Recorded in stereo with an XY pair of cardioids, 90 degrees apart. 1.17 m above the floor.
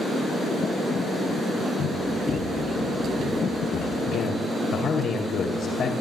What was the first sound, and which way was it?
Running footsteps, 55° left.